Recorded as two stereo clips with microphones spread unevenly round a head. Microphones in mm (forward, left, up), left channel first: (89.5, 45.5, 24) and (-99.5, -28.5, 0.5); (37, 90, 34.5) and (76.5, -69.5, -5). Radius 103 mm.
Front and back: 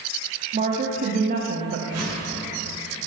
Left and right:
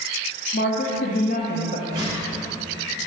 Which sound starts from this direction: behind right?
A whoosh, at 1.9 s.